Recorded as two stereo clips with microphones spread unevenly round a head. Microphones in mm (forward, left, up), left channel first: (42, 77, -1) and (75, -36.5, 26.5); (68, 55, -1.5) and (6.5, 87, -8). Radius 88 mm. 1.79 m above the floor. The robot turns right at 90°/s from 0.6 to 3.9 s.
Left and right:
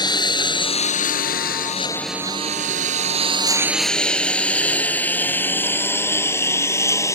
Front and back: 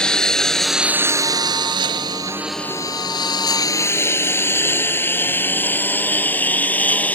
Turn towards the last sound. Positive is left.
turn(degrees=40)